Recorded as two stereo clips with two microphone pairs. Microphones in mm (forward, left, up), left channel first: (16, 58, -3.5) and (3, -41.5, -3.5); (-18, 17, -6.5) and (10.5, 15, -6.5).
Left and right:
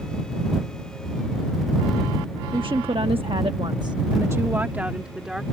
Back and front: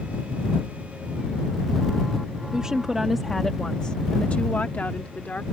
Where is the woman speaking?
65° right; by 5.4 s straight behind.